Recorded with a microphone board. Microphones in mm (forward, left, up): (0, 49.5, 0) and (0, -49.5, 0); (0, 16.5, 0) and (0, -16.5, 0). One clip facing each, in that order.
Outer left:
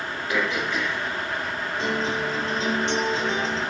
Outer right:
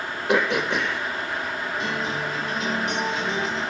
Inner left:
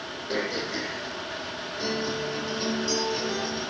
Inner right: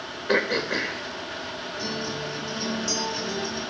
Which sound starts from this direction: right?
Throat clearing, at 0.3 s.